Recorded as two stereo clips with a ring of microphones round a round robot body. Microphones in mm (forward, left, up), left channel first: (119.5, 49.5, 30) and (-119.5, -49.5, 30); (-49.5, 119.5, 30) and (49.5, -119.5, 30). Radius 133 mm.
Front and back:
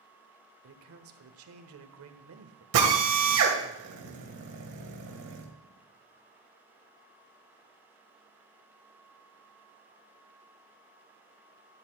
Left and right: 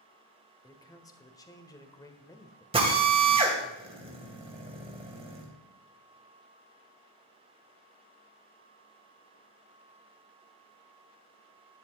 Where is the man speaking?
175° right, 1.3 m.